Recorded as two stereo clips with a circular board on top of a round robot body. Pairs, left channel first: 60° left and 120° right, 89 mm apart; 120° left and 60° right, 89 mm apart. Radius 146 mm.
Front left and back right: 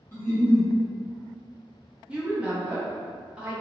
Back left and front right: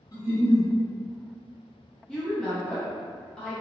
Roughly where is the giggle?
Behind left.